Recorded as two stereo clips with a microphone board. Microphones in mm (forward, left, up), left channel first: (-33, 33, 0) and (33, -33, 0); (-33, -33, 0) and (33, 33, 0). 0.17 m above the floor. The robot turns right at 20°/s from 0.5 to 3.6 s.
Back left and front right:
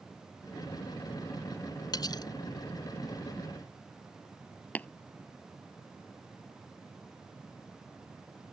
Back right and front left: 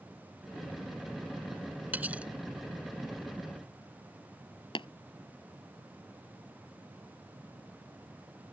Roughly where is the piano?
I don't hear a piano.